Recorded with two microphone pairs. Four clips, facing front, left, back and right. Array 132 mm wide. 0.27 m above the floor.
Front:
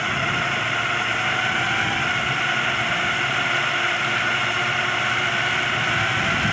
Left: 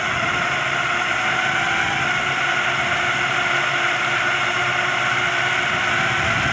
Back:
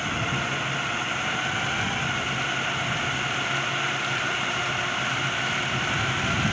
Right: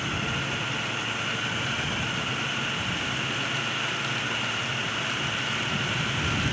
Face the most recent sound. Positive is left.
turn(degrees=70)